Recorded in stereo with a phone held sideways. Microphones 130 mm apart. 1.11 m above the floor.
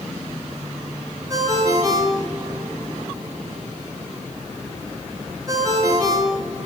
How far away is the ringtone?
About 8.5 m.